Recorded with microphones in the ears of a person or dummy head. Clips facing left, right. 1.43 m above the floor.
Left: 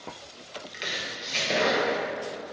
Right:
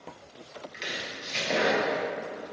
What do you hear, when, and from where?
0.7 s chopping: centre (ahead or behind), 0.9 m